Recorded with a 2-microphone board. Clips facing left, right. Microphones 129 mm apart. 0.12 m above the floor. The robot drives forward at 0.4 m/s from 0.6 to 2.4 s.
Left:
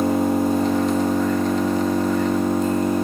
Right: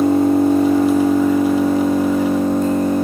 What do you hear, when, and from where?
0.0 s an engine running: 65° right (ahead or behind), 1.8 m; by 3.0 s 55° right (ahead or behind), 2 m